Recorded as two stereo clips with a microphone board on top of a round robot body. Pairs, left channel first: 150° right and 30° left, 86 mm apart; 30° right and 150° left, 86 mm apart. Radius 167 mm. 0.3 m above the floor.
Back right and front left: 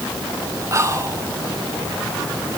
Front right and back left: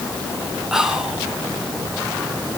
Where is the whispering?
65° left, 2.0 m.